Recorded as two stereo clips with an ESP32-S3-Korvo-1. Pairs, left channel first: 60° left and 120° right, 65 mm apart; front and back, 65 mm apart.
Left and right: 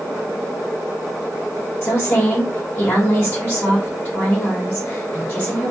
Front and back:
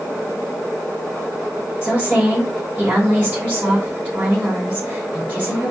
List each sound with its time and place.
1.8 s a woman speaking: 110° left, 2.5 m